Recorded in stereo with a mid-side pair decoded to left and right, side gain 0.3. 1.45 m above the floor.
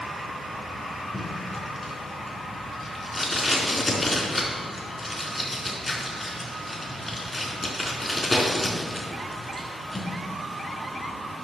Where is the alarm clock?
No alarm clock in this recording.